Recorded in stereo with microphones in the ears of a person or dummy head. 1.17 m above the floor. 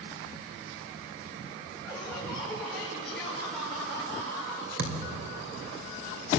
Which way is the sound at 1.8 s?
Centre (ahead or behind).